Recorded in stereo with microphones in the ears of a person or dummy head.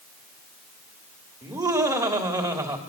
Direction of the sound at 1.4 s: 20° right (ahead or behind).